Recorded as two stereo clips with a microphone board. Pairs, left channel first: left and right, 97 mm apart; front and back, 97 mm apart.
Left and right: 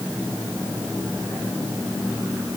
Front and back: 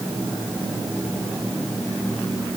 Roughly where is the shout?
No shout in this recording.